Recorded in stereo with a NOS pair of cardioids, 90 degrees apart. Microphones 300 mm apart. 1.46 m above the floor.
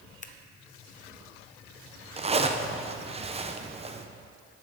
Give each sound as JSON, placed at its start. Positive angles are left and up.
{"t": 0.2, "sound": "scissors", "azimuth_deg": 25, "distance_m": 0.8}
{"t": 2.2, "sound": "a zipper", "azimuth_deg": -20, "distance_m": 0.8}